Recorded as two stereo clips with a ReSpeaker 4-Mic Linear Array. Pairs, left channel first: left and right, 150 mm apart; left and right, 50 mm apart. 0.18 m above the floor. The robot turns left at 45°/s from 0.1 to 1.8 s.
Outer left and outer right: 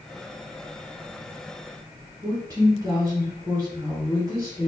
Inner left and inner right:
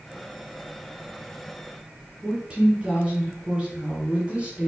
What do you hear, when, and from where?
2.2 s a woman speaking: 20° right (ahead or behind), 1.4 m